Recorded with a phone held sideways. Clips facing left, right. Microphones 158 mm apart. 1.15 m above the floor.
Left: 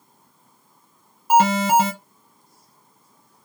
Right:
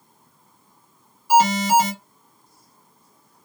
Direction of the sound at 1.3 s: 55° left (ahead or behind).